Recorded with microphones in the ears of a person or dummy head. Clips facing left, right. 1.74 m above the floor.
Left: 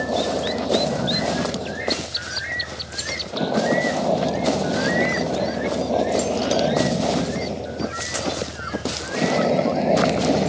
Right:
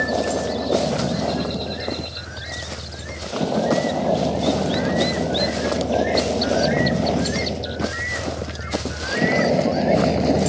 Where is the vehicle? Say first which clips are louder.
Right 1 dB; 5° right (ahead or behind); by 10.5 s 10° right (ahead or behind).